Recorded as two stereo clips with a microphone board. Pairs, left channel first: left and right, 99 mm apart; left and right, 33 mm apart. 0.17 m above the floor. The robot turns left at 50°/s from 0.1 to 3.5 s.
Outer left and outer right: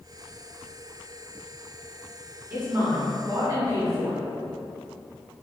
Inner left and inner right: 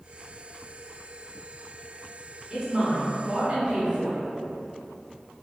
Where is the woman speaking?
40° right, 1.4 m; by 4.2 s 90° right, 1.4 m.